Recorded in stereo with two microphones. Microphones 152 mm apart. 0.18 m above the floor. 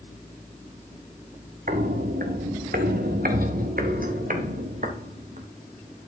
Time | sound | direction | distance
1.7 | footsteps | 70° right (ahead or behind) | 1.3 m